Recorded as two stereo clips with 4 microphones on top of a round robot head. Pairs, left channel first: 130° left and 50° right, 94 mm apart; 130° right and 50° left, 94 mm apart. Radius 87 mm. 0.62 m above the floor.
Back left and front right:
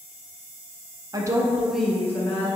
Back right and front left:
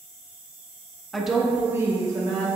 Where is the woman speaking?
45° right, 0.7 m; by 2.5 s 85° left, 0.9 m.